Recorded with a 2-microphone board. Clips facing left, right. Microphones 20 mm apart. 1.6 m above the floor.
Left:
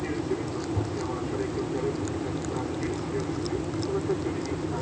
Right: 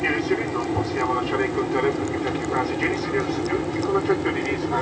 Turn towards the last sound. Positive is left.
turn(degrees=-65)  # may be behind; listen again after turning